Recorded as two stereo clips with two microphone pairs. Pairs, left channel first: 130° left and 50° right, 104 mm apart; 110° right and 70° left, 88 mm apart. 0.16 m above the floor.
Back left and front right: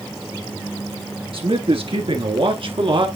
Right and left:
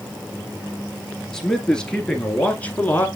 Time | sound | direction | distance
1.3 | a man speaking | 30° right | 2.5 m